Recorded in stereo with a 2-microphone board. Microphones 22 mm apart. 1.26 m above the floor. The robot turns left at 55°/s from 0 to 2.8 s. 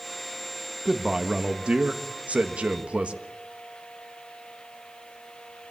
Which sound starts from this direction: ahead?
A man speaking, at 0.8 s.